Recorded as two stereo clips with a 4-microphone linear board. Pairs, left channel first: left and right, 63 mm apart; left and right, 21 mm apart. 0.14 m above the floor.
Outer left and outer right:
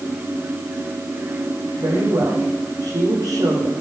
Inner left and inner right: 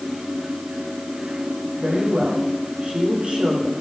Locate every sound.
1.8 s a woman speaking: 70° right (ahead or behind), 9 m